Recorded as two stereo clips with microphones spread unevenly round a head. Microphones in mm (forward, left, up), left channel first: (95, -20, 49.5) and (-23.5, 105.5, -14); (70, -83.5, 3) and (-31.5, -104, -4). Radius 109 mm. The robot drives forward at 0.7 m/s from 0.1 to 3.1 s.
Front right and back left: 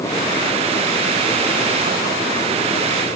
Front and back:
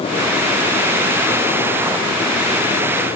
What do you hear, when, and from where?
Only background noise.